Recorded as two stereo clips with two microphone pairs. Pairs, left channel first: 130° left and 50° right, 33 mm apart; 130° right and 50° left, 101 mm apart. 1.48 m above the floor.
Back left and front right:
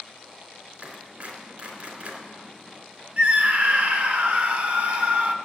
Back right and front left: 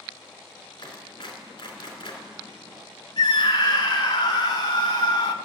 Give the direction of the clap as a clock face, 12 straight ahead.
3 o'clock.